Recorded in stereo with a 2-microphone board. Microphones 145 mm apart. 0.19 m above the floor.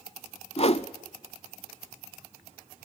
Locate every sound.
0.6 s a whoosh: 40° left (ahead or behind), 0.6 m